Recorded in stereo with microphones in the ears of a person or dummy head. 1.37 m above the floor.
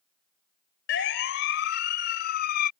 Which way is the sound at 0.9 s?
75° left (ahead or behind).